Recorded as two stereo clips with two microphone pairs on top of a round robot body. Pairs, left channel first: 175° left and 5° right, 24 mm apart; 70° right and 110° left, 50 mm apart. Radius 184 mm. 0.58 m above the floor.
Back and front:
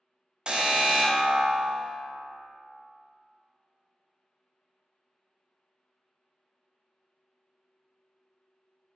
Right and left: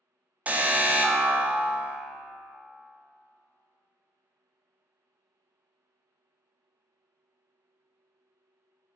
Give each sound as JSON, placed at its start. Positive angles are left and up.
{"t": 0.5, "sound": "an alarm", "azimuth_deg": 55, "distance_m": 0.5}